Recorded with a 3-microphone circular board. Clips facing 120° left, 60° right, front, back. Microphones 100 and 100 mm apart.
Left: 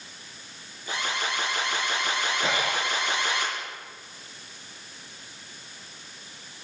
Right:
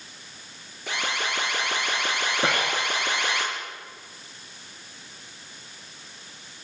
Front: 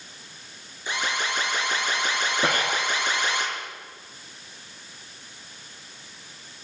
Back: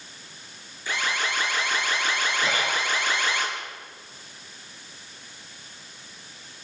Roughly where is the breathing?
Ahead right.